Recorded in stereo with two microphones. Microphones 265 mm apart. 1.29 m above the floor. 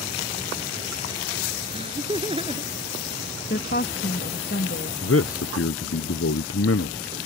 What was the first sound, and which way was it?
Laughter, 20° right (ahead or behind).